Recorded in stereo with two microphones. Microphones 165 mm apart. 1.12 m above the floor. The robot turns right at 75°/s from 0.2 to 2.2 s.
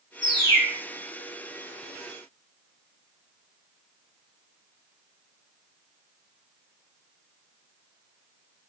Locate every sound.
0.2 s a bird: 45° right, 1.3 m; by 0.8 s 5° right, 1.3 m